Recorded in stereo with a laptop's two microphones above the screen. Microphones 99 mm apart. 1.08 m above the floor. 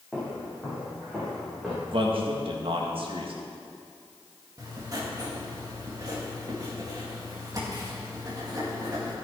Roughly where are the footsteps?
Centre.